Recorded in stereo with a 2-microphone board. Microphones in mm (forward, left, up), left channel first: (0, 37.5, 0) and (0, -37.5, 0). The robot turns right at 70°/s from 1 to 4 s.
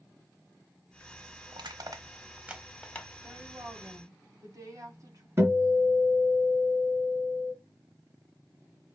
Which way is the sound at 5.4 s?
35° right (ahead or behind).